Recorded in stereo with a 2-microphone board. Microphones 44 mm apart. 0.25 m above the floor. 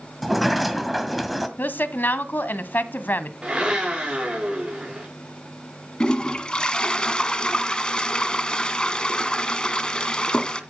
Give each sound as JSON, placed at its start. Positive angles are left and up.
{"t": 0.2, "sound": "a sliding door", "side_deg": 0, "distance_m": 1.8}
{"t": 1.6, "sound": "a woman speaking", "side_deg": 45, "distance_m": 1.7}
{"t": 3.4, "sound": "a blender", "side_deg": -20, "distance_m": 6.5}
{"t": 6.0, "sound": "a toilet flushing", "side_deg": 20, "distance_m": 1.7}